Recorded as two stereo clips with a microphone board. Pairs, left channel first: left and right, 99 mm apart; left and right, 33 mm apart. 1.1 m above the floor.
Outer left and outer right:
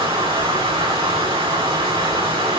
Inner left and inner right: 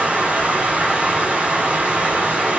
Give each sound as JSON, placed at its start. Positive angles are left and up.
{"t": 0.0, "sound": "running water", "side_deg": -65, "distance_m": 3.5}